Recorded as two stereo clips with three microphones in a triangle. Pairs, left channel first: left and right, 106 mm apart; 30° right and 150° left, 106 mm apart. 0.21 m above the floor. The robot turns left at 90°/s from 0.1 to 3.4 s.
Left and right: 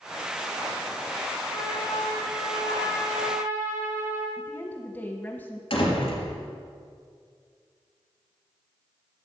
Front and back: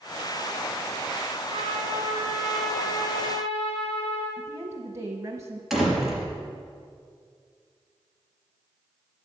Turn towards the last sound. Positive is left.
turn(degrees=60)